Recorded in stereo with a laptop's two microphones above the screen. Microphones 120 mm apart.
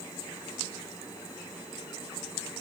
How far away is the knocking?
I don't hear knocking.